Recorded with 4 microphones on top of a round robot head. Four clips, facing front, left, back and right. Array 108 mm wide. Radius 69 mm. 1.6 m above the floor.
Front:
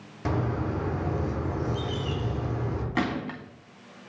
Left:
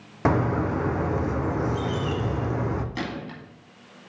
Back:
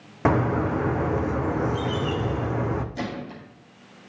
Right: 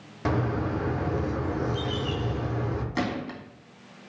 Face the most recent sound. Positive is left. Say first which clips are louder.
# right 3 dB, front 3 dB
turn(degrees=-20)